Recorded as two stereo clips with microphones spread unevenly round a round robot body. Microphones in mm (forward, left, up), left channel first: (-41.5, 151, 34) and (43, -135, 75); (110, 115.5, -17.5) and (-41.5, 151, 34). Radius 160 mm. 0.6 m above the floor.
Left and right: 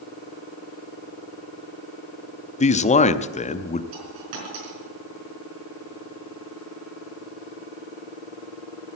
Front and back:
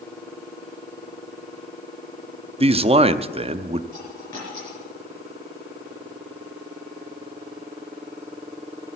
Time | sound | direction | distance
2.6 | a man speaking | 115° left | 0.6 m
3.9 | a dropped coin | 95° right | 4.5 m